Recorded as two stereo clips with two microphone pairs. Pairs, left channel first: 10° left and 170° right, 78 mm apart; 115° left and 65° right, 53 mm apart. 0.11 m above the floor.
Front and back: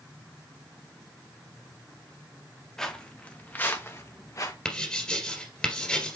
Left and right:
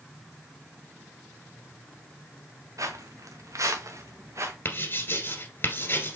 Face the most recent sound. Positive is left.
turn(degrees=85)